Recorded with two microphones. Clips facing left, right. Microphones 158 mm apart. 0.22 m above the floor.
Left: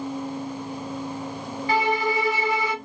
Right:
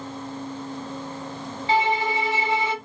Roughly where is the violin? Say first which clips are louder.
Right 1 dB; right.